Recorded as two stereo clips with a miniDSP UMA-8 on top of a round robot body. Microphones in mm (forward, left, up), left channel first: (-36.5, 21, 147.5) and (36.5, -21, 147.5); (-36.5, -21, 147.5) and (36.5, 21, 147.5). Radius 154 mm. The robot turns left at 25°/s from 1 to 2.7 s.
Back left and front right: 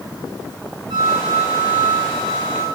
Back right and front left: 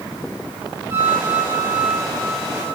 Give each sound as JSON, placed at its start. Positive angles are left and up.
{"t": 0.9, "sound": "a flute", "azimuth_deg": -30, "distance_m": 2.5}